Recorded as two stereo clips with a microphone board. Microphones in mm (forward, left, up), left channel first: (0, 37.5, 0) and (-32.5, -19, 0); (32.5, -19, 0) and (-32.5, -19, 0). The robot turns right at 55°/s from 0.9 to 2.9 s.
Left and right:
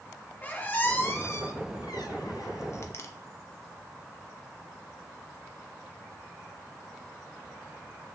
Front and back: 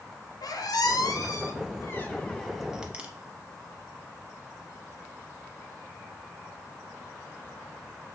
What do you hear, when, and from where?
0.4 s a squeak: straight ahead, 0.5 m; by 3.1 s 110° left, 0.5 m